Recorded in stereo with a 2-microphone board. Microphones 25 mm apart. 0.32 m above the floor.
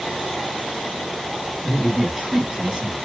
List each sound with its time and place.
1.6 s a man speaking: 25° right (ahead or behind), 1.8 m